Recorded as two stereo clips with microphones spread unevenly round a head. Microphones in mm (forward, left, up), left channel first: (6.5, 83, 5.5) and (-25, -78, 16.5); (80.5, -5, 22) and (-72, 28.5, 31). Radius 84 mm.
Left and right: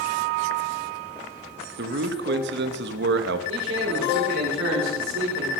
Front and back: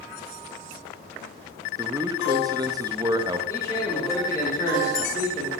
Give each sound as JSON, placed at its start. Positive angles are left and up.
{"t": 1.8, "sound": "a man speaking", "azimuth_deg": -125, "distance_m": 1.3}
{"t": 3.5, "sound": "a man speaking", "azimuth_deg": -85, "distance_m": 4.0}